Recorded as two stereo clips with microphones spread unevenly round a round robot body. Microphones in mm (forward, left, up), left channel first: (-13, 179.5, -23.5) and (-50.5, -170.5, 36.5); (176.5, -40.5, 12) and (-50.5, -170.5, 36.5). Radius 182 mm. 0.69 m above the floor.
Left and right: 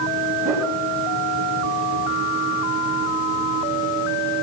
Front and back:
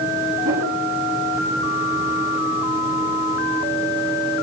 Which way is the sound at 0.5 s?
Straight behind.